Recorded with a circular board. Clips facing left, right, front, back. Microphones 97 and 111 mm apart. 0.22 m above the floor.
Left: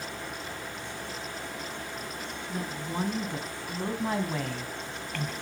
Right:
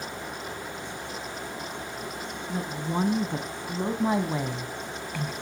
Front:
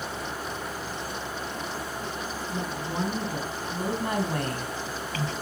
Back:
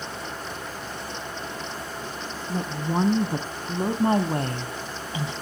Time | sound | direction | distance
2.5 | a woman speaking | 150° right | 2.5 m